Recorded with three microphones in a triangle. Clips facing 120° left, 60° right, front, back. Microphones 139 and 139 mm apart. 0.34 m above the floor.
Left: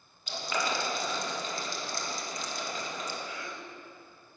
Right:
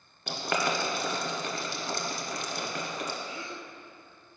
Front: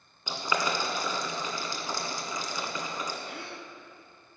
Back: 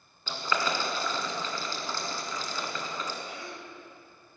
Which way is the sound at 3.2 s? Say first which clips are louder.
Right 1 dB, even; 5° right.